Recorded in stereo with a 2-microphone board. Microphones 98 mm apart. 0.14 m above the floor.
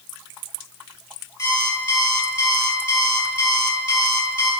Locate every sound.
1.4 s an alarm clock: 30° left (ahead or behind), 2 m